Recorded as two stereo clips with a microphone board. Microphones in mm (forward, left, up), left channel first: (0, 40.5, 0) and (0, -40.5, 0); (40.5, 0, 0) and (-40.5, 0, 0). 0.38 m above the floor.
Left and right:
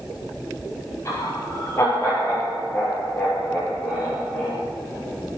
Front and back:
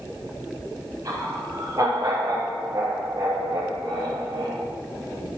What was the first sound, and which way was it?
Laughter, 145° left.